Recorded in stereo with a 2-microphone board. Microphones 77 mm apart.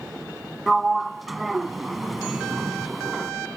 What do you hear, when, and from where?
0.7 s a sliding door: centre (ahead or behind)